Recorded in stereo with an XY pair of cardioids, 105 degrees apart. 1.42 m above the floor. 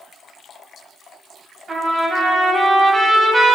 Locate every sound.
1.7 s a trumpet: 35° right, 3.5 m